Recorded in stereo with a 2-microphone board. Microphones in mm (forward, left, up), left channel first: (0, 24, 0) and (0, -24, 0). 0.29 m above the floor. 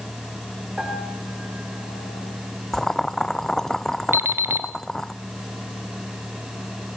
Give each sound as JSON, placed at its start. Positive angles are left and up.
{"t": 0.8, "sound": "a piano", "side_deg": -15, "distance_m": 5.5}
{"t": 2.7, "sound": "boiling", "side_deg": 10, "distance_m": 0.7}
{"t": 4.1, "sound": "an alarm clock", "side_deg": -50, "distance_m": 1.1}